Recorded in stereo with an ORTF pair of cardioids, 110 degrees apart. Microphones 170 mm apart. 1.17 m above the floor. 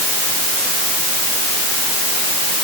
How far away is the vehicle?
No vehicle in this recording.